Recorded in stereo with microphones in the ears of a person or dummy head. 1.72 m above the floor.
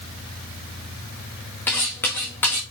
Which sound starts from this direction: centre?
Cutlery clinking, at 1.7 s.